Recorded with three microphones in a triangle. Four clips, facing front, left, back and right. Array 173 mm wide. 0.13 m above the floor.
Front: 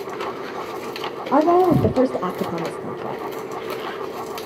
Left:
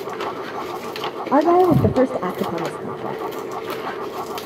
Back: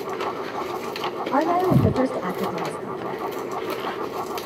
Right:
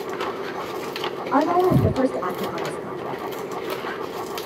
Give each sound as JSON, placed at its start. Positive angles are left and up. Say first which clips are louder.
{"t": 1.3, "sound": "a woman speaking", "louder": "left 4 dB, front 5 dB", "azimuth_deg": 45, "distance_m": 4.5}